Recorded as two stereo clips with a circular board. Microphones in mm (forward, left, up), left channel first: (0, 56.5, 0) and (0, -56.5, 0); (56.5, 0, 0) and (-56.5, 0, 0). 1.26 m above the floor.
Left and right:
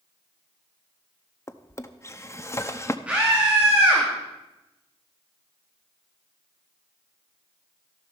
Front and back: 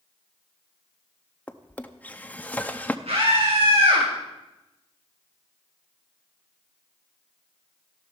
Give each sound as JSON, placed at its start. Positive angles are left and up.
{"t": 1.5, "sound": "a drawer", "azimuth_deg": 60, "distance_m": 0.7}
{"t": 3.1, "sound": "a scream", "azimuth_deg": -170, "distance_m": 2.5}